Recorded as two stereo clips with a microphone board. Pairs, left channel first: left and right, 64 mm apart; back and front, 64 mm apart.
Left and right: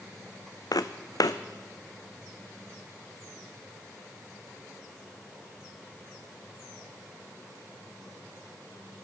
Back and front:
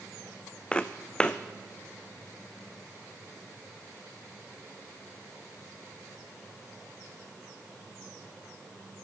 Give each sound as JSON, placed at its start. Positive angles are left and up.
{"t": 0.7, "sound": "footsteps", "azimuth_deg": 110, "distance_m": 0.7}